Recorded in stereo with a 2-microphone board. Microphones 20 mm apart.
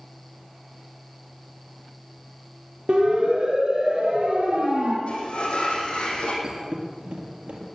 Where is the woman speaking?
No woman speaking in this recording.